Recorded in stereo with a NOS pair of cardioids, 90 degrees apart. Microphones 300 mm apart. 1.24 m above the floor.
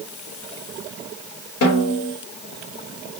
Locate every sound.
1.6 s a snare drum: 55° left, 2.5 m